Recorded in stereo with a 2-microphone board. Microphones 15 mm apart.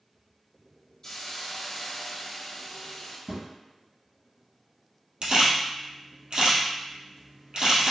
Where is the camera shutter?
85° right, 1.9 m.